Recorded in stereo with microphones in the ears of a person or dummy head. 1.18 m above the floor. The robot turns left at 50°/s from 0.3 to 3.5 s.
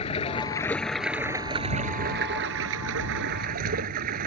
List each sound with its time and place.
0.0 s running water: 35° left; by 4.3 s 125° right